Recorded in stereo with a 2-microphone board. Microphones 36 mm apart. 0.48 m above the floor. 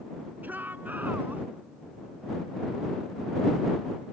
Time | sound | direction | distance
0.4 | a shout | 65° right (ahead or behind) | ?